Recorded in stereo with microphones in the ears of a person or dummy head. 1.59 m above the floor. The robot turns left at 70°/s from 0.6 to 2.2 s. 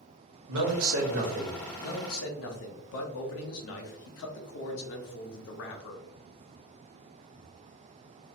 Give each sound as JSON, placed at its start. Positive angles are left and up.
{"t": 0.5, "sound": "a man speaking", "azimuth_deg": -80, "distance_m": 1.0}
{"t": 1.8, "sound": "a man speaking", "side_deg": 45, "distance_m": 0.7}